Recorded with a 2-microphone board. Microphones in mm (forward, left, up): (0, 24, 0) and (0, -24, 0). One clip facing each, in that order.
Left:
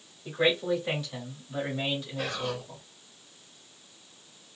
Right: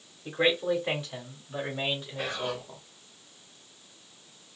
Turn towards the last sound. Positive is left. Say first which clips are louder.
# even
turn(degrees=-20)  # may be behind; listen again after turning